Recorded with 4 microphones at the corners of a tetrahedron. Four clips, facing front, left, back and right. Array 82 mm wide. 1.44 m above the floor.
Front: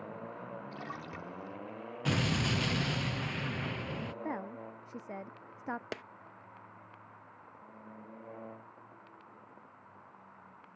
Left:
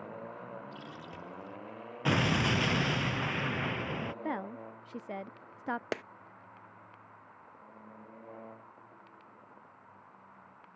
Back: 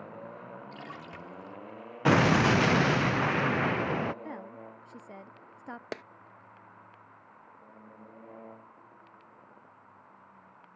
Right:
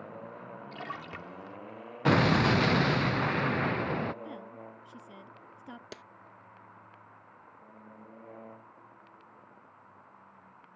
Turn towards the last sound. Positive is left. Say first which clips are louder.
# left 12 dB, back 3 dB
turn(degrees=110)